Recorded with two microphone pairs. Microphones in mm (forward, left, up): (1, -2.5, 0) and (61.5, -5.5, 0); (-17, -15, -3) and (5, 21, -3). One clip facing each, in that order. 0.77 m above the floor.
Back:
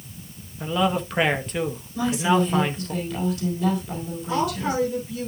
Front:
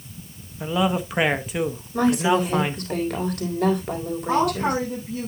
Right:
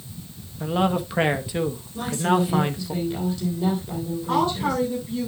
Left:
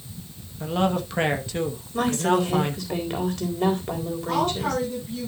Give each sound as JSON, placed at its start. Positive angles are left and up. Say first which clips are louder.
{"t": 0.6, "sound": "a man speaking", "louder": "even, right 1 dB", "azimuth_deg": -65, "distance_m": 1.0}
{"t": 1.9, "sound": "a woman speaking", "louder": "front 2 dB, left 1 dB", "azimuth_deg": 30, "distance_m": 4.0}
{"t": 4.3, "sound": "a woman speaking", "louder": "front 3 dB, right 2 dB", "azimuth_deg": -50, "distance_m": 6.0}